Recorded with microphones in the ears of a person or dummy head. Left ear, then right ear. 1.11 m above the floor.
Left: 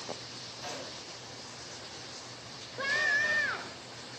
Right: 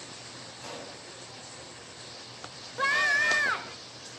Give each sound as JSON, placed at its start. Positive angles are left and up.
{"t": 0.6, "sound": "a pop", "side_deg": 20, "distance_m": 8.5}
{"t": 2.8, "sound": "a scream", "side_deg": -30, "distance_m": 1.3}